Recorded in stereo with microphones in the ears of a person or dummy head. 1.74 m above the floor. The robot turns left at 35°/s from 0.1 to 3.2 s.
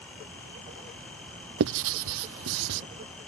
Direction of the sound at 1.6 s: 70° right (ahead or behind).